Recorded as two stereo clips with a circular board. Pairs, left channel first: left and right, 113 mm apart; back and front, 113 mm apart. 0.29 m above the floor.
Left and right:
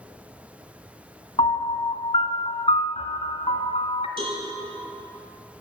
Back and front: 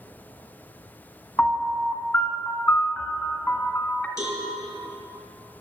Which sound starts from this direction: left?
A piano, at 1.4 s.